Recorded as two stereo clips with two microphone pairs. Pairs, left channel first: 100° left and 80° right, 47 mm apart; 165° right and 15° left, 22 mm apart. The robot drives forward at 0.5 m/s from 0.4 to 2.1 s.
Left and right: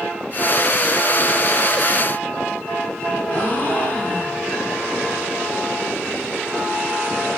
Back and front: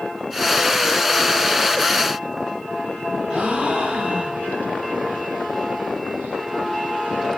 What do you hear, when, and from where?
3.3 s a gasp: 50° left, 9.5 m